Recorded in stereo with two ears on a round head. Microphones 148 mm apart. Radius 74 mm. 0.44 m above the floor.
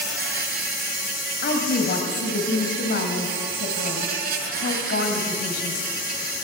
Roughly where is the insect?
Right.